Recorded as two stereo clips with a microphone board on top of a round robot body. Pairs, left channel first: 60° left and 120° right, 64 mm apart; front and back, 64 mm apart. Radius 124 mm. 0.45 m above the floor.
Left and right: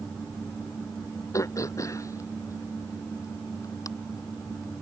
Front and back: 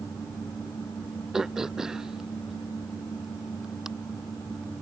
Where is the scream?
I don't hear a scream.